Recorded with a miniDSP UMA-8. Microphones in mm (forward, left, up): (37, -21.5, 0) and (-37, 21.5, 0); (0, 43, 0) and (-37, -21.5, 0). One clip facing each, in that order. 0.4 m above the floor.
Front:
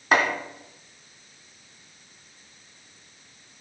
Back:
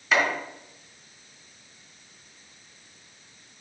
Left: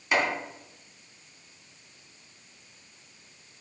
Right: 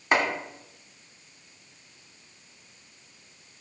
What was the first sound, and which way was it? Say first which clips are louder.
Chopping: front 2 dB, right 2 dB; 70° right.